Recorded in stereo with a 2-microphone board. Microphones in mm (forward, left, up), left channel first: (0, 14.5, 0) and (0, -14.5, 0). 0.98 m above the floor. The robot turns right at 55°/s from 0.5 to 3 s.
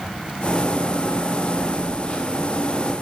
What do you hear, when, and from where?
1.6 s a phone buzzing: 25° left, 4 m; by 2.6 s 85° left, 4 m